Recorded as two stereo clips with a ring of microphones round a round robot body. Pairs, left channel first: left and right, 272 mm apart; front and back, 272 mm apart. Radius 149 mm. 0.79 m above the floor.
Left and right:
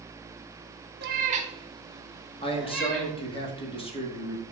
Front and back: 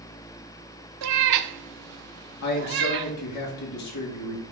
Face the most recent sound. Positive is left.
turn(degrees=20)